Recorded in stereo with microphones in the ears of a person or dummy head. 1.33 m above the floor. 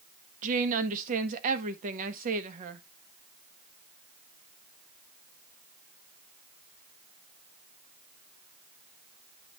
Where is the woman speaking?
45° right (ahead or behind), 1.1 m.